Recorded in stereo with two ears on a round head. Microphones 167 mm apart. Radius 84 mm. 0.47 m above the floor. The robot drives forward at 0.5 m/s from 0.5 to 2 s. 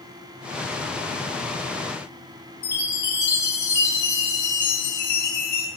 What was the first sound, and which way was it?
A chime, 20° left (ahead or behind).